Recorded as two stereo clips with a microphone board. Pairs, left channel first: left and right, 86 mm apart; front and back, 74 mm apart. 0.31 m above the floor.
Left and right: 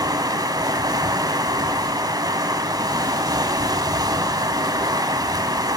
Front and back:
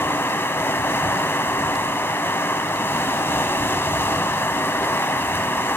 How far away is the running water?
About 1.0 m.